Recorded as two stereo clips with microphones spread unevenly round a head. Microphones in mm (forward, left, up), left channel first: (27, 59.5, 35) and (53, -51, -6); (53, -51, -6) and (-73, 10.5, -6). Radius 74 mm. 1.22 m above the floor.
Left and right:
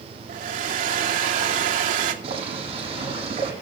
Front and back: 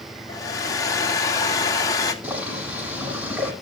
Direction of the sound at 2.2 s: 125° right.